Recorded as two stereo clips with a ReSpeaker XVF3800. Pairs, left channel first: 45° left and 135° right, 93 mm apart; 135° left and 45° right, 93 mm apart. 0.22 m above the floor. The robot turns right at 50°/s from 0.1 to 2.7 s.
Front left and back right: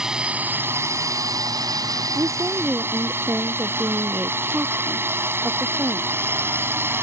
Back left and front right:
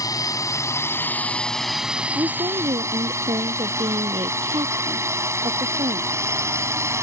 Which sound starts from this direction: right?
A woman speaking, at 2.1 s.